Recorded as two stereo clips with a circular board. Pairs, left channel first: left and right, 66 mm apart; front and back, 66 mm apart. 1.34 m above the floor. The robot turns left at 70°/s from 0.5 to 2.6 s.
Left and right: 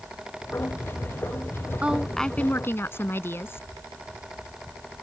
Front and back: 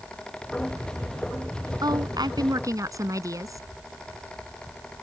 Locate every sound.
1.8 s a woman speaking: 160° right; by 3.6 s 145° left